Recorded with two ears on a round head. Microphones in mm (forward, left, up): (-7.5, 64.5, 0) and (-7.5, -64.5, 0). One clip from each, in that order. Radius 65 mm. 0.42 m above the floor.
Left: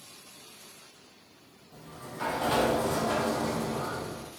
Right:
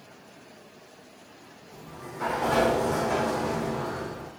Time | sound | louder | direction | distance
1.7 | a sliding door | right 2 dB | 65° left (ahead or behind) | 3 m